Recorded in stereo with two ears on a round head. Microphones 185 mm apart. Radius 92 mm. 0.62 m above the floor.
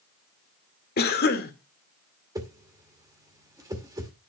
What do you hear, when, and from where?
1.0 s a cough: 50° left (ahead or behind), 1.9 m
2.4 s a whoosh: 20° right (ahead or behind), 2 m